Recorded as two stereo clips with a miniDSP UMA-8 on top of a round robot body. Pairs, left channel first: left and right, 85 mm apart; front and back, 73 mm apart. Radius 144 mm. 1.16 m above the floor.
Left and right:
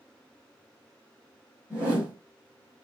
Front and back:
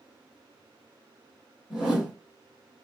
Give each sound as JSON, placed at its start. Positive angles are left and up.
{"t": 1.7, "sound": "a whoosh", "azimuth_deg": 35, "distance_m": 1.1}